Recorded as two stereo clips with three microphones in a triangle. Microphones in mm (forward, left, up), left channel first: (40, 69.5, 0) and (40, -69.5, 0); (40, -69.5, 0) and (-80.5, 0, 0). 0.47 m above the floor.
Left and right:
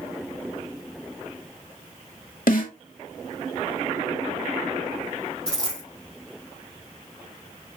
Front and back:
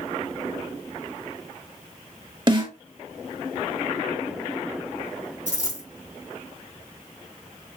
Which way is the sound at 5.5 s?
5° left.